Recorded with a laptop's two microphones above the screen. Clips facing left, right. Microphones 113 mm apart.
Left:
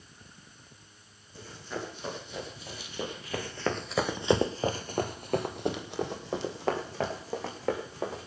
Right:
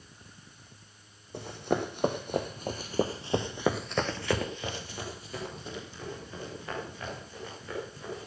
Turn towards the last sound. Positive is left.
turn(degrees=75)  # may be behind; listen again after turning